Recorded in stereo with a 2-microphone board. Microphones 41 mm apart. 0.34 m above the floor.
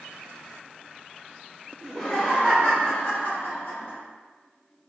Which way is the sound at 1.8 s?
5° right (ahead or behind).